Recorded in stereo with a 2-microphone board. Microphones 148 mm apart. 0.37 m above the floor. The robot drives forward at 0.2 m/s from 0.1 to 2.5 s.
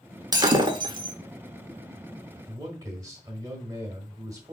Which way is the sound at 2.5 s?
25° right (ahead or behind).